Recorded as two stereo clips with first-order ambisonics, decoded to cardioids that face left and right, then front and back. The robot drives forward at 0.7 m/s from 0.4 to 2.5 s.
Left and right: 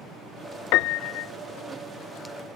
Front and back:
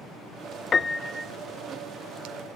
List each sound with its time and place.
0.7 s a piano: 70° left; by 1.3 s 105° left